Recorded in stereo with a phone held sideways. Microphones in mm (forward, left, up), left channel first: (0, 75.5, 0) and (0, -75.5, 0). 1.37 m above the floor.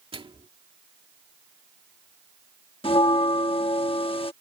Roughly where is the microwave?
Right.